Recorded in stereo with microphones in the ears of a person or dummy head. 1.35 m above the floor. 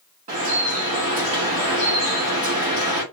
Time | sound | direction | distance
0.3 | dripping | 40° right (ahead or behind) | 1.4 m